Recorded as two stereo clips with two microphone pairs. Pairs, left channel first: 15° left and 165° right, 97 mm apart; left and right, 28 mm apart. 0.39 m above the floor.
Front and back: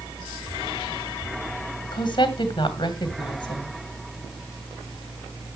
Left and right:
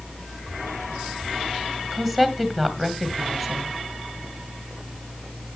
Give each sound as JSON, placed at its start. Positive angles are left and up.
{"t": 1.9, "sound": "a woman speaking", "azimuth_deg": 10, "distance_m": 2.0}